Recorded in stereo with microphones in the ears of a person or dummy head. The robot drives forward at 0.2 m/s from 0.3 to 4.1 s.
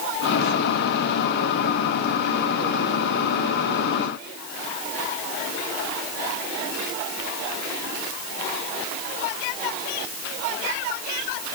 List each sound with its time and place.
Only background noise.